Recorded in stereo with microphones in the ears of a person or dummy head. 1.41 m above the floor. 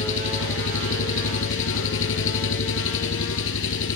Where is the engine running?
75° left (ahead or behind).